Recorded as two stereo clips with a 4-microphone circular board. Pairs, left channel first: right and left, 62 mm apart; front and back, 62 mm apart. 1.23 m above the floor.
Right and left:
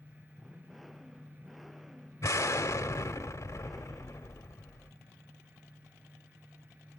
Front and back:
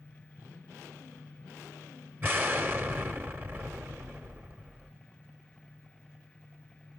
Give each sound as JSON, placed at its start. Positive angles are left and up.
{"t": 2.2, "sound": "an explosion", "azimuth_deg": -125, "distance_m": 1.5}